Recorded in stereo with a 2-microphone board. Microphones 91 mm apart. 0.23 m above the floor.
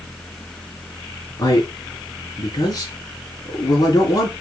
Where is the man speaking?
40° left (ahead or behind), 2.5 m.